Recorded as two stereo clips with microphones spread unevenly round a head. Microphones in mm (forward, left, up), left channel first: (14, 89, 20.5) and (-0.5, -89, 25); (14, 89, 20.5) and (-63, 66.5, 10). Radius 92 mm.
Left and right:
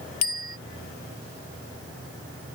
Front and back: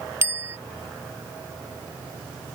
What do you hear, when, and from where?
0.2 s a bicycle bell: 135° left